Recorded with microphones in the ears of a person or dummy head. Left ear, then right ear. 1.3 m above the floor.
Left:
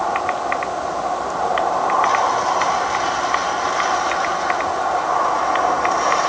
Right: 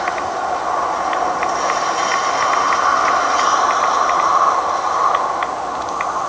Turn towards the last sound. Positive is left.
No sound to turn to.